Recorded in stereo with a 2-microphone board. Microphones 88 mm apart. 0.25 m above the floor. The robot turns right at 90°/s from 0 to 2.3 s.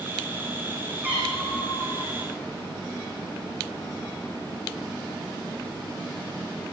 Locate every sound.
1.0 s a cat meowing: 20° right, 10 m; by 2.2 s 80° left, 10 m